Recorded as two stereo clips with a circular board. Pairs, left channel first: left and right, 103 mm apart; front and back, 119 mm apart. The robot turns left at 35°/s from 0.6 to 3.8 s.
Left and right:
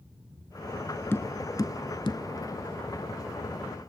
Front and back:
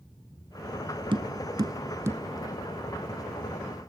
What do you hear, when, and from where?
1.1 s tapping: 150° left, 0.7 m; by 2.2 s 115° left, 0.7 m